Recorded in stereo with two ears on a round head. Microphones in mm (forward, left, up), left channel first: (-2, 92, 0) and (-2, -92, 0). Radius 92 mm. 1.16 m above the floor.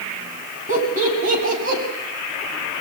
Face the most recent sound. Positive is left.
turn(degrees=-45)  # may be behind; listen again after turning